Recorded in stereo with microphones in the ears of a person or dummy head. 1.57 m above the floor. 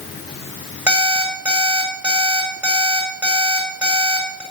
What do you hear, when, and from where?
0.9 s an alarm clock: 10° right (ahead or behind), 4.5 m